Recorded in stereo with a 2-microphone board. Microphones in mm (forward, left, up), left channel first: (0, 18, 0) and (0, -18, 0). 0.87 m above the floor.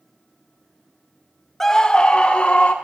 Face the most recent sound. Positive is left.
turn(degrees=35)  # may be behind; listen again after turning